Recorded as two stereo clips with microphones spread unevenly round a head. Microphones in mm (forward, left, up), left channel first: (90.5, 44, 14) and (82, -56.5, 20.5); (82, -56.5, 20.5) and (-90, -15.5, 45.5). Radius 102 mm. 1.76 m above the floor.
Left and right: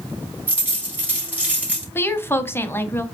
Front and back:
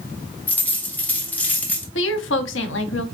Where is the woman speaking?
20° left, 0.8 m.